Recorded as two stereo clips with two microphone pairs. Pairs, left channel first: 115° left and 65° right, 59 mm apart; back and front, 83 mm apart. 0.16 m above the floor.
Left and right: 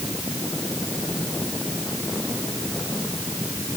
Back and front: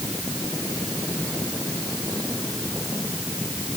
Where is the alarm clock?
I don't hear an alarm clock.